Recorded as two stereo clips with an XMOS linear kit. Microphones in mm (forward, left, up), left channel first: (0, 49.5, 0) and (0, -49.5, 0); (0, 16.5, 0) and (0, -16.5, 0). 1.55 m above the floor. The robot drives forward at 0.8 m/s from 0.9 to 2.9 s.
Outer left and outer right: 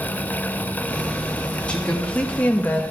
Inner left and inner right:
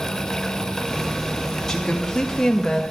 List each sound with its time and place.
1.7 s a woman speaking: 15° left (ahead or behind), 2.5 m; by 2.8 s 20° left (ahead or behind), 1.7 m